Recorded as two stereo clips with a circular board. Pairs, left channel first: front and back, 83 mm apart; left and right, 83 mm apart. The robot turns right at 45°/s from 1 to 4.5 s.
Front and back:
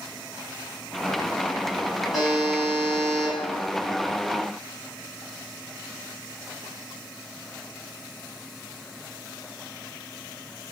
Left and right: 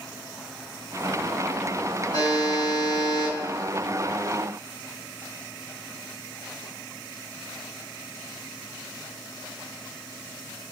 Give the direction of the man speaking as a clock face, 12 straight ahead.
No man speaking in this recording.